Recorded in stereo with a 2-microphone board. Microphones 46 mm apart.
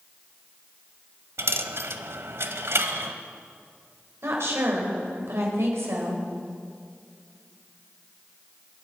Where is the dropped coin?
65° right (ahead or behind), 1.0 m.